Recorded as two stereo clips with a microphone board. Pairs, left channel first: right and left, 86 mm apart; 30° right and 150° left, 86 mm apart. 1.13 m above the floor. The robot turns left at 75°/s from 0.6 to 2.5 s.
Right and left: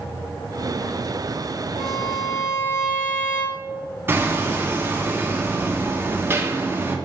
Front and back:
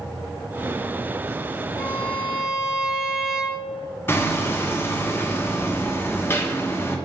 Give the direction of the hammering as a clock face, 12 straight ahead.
11 o'clock.